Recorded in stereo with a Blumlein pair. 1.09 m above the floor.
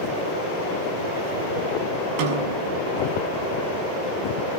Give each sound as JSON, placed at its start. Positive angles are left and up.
{"t": 2.2, "sound": "a snare drum", "azimuth_deg": -45, "distance_m": 6.0}